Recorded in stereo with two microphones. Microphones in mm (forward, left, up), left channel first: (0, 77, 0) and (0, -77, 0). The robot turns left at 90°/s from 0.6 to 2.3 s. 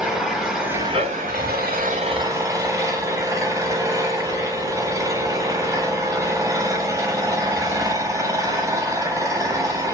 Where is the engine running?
5° right, 0.8 m; by 9.9 s 160° right, 0.8 m.